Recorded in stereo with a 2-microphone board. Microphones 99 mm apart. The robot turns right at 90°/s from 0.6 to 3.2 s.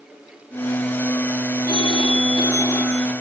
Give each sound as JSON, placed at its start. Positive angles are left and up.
{"t": 1.7, "sound": "a phone ringing", "azimuth_deg": 55, "distance_m": 1.8}